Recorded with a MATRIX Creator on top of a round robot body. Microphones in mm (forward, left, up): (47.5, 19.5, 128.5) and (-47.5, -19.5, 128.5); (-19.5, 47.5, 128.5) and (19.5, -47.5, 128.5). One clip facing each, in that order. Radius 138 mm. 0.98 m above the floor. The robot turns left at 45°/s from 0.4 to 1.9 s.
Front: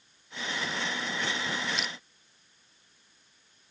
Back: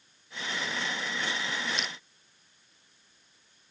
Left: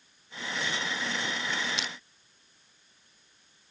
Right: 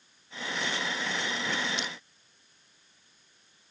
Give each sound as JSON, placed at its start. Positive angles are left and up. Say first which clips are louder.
{"t": 1.8, "sound": "crushing", "louder": "front 1 dB, right 1 dB", "azimuth_deg": 110}